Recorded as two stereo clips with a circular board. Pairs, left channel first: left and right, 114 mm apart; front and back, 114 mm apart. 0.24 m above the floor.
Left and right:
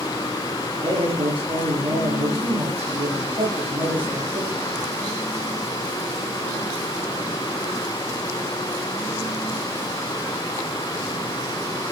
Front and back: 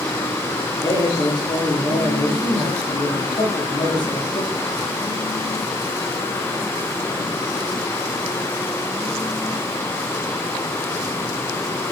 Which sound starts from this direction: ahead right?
A man speaking, at 0.8 s.